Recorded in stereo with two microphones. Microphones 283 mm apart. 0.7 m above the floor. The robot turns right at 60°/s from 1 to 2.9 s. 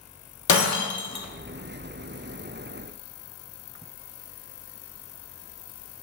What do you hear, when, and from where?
0.5 s breaking glass: 70° left (ahead or behind), 0.7 m; by 1.2 s 60° left (ahead or behind), 0.7 m